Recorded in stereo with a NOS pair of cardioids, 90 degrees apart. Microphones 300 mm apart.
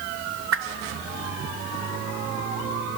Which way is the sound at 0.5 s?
45° right.